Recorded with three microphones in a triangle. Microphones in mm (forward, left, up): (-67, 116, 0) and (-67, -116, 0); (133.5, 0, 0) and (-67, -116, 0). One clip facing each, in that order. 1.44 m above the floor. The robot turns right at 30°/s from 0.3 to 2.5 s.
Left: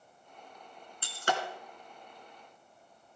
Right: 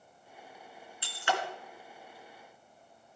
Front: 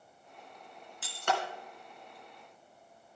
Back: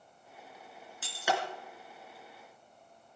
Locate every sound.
1.0 s breaking glass: 120° left, 2.5 m; by 1.4 s 130° left, 2.5 m